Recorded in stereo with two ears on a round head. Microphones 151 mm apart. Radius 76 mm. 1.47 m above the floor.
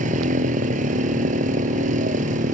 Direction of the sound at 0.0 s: 50° right (ahead or behind).